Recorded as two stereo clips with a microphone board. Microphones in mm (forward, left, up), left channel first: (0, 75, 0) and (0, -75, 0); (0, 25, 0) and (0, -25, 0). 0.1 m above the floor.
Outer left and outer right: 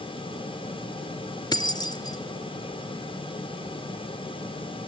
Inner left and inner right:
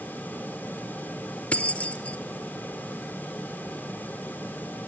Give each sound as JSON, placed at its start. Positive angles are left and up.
{"t": 1.5, "sound": "keys jangling", "side_deg": 25, "distance_m": 1.2}